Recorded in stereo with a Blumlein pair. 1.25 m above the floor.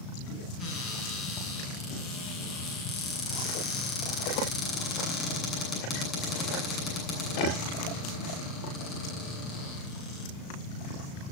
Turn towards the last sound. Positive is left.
turn(degrees=30)